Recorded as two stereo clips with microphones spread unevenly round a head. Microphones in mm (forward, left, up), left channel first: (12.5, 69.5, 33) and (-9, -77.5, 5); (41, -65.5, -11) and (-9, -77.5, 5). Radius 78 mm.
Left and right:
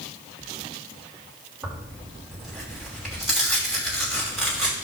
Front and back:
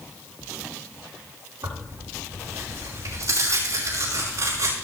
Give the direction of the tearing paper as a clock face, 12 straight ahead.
6 o'clock.